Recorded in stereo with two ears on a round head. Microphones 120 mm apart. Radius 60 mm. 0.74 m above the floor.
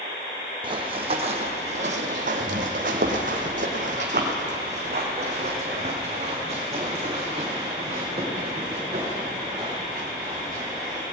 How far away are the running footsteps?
About 1.9 m.